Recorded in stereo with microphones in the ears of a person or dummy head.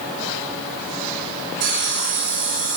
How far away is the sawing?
About 1.3 m.